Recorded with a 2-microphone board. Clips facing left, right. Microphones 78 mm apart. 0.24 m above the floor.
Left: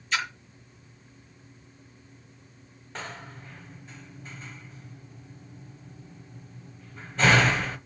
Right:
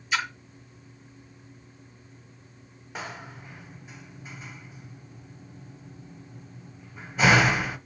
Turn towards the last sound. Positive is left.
turn(degrees=-10)  # may be behind; listen again after turning